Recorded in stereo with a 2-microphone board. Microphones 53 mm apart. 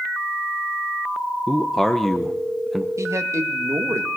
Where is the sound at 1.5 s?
5° left (ahead or behind), 1.0 m.